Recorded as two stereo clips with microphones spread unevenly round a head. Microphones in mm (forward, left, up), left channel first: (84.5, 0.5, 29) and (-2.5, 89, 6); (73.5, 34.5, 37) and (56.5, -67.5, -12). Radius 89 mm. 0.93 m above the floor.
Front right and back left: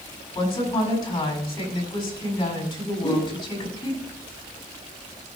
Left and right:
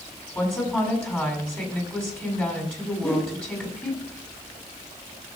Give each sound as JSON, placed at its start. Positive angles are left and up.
{"t": 0.3, "sound": "a woman speaking", "azimuth_deg": 5, "distance_m": 6.5}
{"t": 3.0, "sound": "a whoosh", "azimuth_deg": 5, "distance_m": 5.0}